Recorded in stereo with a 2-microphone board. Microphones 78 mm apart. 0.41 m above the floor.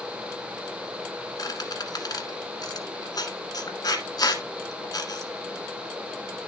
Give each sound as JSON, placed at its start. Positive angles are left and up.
{"t": 1.4, "sound": "a squeak", "side_deg": 55, "distance_m": 1.3}